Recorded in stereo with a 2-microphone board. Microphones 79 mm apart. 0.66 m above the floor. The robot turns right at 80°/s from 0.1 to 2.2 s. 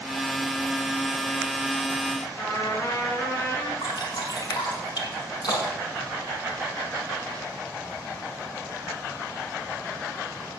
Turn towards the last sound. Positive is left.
turn(degrees=60)  # may be behind; listen again after turning